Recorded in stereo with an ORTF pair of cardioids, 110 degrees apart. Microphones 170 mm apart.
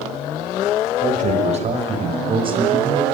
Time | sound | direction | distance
1.0 | a man speaking | 50° right | 6 m